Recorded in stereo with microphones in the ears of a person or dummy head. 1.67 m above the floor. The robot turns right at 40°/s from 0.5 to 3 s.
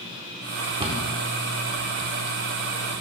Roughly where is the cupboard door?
Right.